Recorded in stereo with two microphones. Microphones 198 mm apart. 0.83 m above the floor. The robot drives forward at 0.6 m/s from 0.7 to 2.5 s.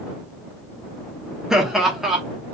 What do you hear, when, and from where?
1.5 s laughter: 5° right (ahead or behind), 0.9 m; by 2.2 s centre (ahead or behind), 1.3 m